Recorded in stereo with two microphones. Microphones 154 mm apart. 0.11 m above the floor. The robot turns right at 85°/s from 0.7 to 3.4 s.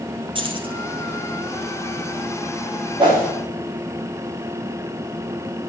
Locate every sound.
0.3 s keys jangling: 35° right (ahead or behind), 2 m; by 0.8 s 40° right (ahead or behind), 2 m
3.0 s a whoosh: 35° right (ahead or behind), 7.5 m; by 3.3 s 5° right (ahead or behind), 7.5 m